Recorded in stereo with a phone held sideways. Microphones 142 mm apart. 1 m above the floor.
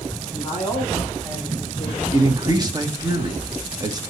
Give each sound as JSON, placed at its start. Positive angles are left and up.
{"t": 0.3, "sound": "a man speaking", "side_deg": 20, "distance_m": 3.0}
{"t": 2.1, "sound": "a man speaking", "side_deg": -30, "distance_m": 1.4}